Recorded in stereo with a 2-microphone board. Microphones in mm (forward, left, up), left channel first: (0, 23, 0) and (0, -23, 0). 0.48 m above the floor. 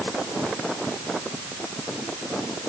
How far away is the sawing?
No sawing in this recording.